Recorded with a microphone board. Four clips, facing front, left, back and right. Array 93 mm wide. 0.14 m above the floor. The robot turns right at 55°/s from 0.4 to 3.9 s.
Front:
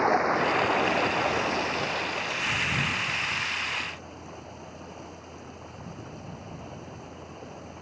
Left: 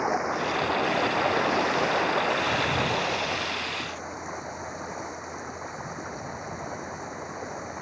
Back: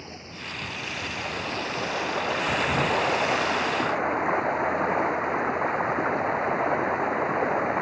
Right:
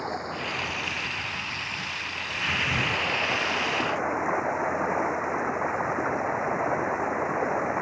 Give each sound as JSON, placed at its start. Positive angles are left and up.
{"t": 0.0, "sound": "running water", "azimuth_deg": 20}